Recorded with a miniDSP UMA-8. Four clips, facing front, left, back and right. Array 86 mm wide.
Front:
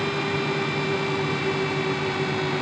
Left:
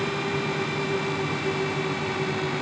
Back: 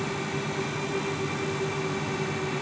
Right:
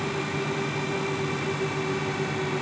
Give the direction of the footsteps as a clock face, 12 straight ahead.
No footsteps in this recording.